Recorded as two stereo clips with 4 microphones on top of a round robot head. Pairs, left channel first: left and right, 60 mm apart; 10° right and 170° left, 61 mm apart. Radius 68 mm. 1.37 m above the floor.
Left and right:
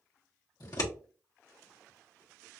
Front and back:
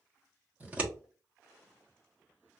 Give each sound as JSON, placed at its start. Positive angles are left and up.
{"t": 0.6, "sound": "scissors", "azimuth_deg": 110, "distance_m": 1.4}